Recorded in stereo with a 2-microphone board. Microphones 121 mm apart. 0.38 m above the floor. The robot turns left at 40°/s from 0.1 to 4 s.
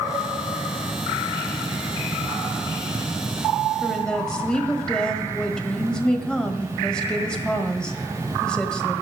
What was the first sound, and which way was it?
A woman speaking, centre (ahead or behind).